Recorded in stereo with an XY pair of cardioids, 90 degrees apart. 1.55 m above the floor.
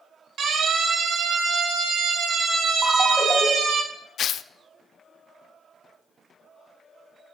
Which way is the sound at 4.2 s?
65° left.